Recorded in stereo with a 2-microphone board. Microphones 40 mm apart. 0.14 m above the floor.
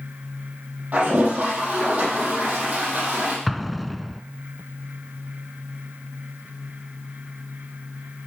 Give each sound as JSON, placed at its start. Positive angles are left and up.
{"t": 0.9, "sound": "a toilet flushing", "side_deg": -40, "distance_m": 6.0}
{"t": 3.5, "sound": "an explosion", "side_deg": 0, "distance_m": 0.5}